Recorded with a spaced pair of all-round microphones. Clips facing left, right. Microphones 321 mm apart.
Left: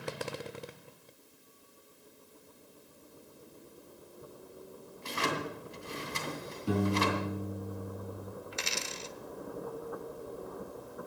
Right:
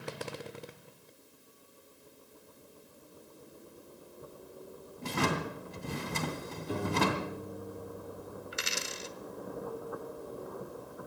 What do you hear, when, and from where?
5.0 s a drawer: 60° right (ahead or behind), 2.5 m
6.7 s a piano: 80° left, 7.5 m
8.5 s a dropped coin: 20° right (ahead or behind), 1.0 m